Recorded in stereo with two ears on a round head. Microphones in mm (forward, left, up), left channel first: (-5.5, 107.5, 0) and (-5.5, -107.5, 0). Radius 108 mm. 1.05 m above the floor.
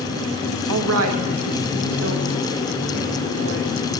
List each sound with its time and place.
0.7 s a woman speaking: 75° right (ahead or behind), 0.7 m; by 3.9 s 50° right (ahead or behind), 4 m